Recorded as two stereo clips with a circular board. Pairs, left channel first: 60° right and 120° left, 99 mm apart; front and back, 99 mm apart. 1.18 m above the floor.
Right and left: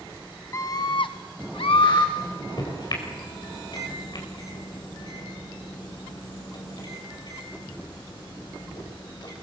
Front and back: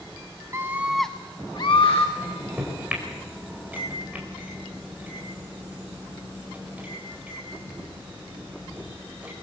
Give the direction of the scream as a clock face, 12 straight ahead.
4 o'clock.